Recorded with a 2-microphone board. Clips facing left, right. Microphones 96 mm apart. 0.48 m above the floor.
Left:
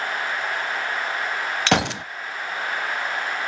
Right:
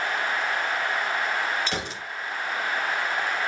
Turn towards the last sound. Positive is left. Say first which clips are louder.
# left 10 dB
turn(degrees=80)